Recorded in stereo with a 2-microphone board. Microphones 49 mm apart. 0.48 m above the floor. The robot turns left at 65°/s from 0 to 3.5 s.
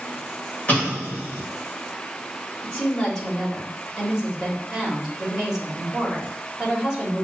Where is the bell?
I don't hear a bell.